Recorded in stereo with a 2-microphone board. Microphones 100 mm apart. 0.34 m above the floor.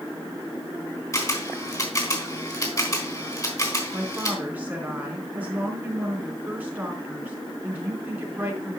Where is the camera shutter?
35° left (ahead or behind), 3.5 m.